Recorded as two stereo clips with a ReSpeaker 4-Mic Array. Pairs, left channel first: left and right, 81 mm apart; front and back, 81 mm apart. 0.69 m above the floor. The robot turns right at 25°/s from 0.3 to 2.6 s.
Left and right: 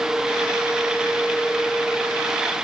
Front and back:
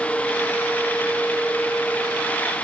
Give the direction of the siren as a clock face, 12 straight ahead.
I don't hear a siren.